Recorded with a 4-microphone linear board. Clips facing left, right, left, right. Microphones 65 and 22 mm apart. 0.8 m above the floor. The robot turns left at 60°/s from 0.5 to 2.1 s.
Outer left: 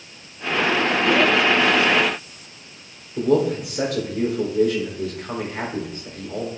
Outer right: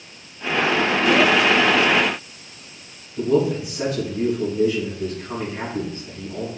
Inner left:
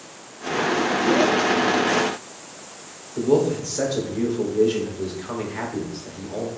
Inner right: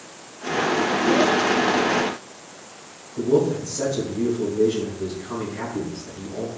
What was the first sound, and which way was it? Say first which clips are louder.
A man speaking: even, even; 70° left (ahead or behind).